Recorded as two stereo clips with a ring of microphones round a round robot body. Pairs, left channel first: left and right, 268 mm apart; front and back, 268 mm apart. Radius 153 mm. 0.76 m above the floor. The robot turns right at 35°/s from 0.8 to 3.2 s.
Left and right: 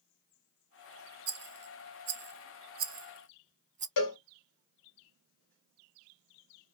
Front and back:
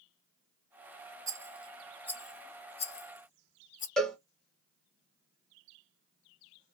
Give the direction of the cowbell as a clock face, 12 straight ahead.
9 o'clock.